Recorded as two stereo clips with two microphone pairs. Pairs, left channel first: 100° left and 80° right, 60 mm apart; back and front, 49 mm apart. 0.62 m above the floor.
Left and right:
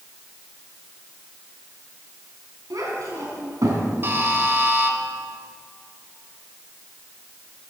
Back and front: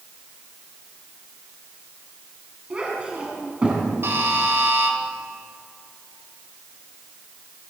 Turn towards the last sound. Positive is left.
turn(degrees=-30)